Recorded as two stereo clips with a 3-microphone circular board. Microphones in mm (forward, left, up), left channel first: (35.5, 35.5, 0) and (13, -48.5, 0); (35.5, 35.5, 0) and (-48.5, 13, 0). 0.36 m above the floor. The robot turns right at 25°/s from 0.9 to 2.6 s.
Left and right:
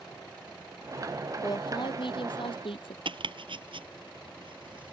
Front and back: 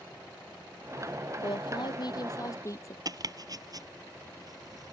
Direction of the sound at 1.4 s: 35° left.